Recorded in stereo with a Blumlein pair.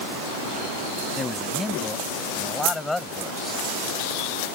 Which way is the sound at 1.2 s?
15° left.